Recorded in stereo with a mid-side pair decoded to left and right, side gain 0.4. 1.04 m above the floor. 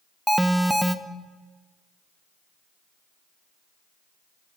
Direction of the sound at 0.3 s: 5° right.